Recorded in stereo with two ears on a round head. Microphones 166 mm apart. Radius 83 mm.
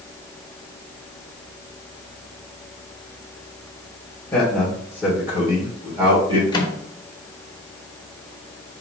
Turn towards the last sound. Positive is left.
turn(degrees=25)  # may be behind; listen again after turning